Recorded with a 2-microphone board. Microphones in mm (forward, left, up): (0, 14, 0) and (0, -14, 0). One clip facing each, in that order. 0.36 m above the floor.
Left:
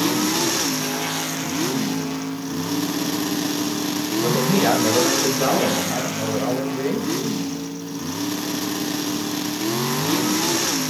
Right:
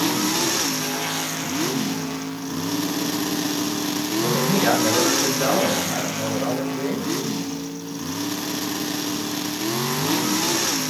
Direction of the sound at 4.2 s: 25° left (ahead or behind).